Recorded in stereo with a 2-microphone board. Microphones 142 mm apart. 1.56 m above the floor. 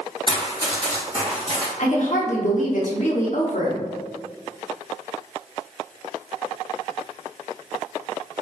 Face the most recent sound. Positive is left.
turn(degrees=60)  # may be behind; listen again after turning